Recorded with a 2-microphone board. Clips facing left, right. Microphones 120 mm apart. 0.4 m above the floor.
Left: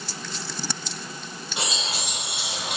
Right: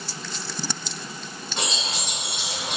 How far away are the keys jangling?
About 1.1 m.